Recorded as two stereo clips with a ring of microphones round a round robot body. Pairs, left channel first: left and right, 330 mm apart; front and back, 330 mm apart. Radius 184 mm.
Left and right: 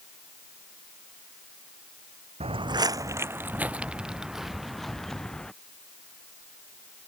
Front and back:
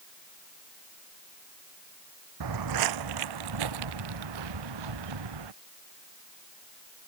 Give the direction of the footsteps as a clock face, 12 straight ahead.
5 o'clock.